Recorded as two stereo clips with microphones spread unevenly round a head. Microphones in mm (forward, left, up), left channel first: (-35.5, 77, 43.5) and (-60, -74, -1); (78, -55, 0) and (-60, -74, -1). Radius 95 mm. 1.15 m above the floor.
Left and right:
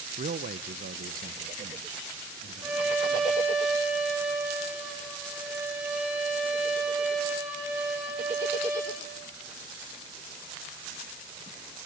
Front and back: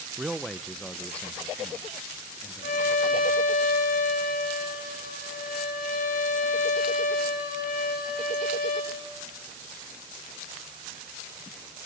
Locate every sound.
0.2 s a man speaking: 90° right, 0.5 m; by 3.4 s 65° right, 3 m
2.6 s a violin: 15° right, 4 m